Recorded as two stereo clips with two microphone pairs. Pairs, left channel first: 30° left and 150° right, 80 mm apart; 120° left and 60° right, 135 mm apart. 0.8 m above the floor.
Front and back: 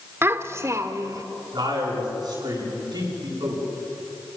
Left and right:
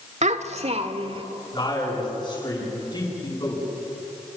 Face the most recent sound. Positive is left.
turn(degrees=175)